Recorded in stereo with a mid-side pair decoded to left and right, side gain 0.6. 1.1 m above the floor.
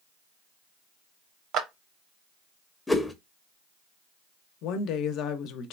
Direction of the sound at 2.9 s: 10° left.